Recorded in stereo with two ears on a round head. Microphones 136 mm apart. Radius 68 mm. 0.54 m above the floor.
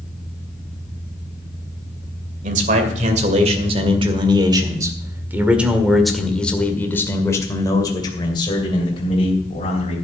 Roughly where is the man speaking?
Right.